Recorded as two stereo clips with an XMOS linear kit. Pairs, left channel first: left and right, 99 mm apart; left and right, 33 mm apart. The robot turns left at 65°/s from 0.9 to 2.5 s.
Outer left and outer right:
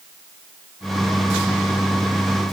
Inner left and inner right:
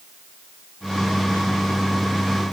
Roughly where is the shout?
I don't hear a shout.